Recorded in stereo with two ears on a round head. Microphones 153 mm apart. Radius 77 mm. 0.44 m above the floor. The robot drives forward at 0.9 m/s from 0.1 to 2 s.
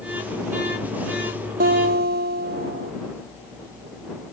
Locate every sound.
1.6 s a guitar: 55° right (ahead or behind); by 2.9 s 60° right (ahead or behind)